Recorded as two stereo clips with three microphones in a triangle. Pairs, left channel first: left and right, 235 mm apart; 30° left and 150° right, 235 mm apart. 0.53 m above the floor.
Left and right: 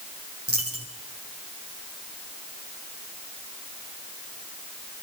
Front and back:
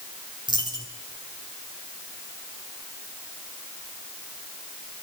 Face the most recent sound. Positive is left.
turn(degrees=-80)